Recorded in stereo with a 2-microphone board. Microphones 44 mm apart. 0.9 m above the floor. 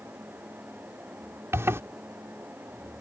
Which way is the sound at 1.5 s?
85° right.